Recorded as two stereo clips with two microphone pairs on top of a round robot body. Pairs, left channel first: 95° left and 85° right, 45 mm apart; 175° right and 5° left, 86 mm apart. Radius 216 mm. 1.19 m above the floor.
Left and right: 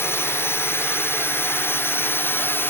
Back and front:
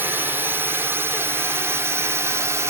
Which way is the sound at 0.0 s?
70° left.